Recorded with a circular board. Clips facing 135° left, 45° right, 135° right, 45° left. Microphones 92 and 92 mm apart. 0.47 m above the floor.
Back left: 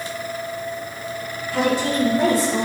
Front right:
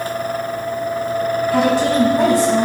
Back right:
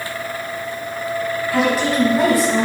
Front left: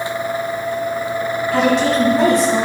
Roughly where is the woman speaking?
Ahead right.